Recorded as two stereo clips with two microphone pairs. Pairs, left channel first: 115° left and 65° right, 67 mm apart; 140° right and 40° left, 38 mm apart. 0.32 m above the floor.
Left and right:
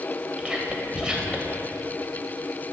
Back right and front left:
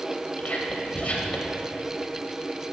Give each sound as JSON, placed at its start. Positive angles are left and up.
{"t": 0.4, "sound": "whispering", "azimuth_deg": -140, "distance_m": 1.1}